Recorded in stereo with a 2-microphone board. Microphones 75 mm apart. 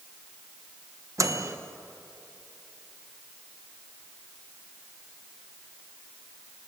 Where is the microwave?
45° right (ahead or behind), 1.3 m.